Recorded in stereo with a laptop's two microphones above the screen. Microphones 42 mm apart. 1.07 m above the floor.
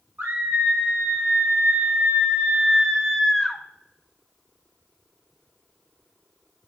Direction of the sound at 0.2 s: 50° right (ahead or behind).